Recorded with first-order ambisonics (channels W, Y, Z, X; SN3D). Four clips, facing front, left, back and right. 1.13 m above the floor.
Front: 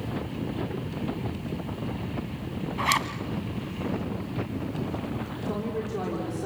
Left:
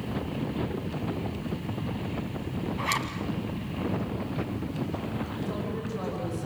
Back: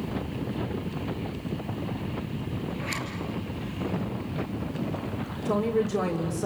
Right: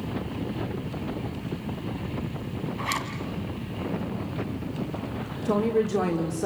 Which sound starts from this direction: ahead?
A zipper, at 2.8 s.